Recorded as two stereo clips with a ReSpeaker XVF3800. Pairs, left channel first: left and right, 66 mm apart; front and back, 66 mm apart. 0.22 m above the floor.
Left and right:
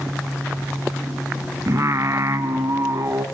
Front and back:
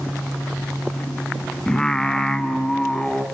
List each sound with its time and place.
1.7 s singing: 75° right, 1.5 m